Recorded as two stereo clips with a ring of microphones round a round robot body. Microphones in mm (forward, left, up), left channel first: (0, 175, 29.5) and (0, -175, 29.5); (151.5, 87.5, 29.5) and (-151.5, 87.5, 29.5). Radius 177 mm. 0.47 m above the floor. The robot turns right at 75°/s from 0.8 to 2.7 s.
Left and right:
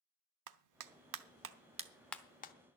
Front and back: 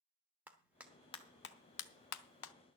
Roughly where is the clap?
Right.